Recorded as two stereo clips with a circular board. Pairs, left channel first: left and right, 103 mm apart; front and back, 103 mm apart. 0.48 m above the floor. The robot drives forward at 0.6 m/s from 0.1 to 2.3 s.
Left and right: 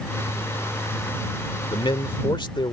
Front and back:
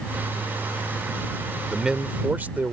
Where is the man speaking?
90° left; by 2.7 s 110° left.